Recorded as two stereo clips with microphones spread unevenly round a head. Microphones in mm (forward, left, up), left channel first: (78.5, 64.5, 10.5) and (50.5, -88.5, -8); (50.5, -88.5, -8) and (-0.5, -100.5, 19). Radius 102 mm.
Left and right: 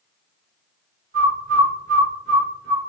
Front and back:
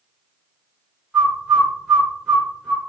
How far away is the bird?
About 4 m.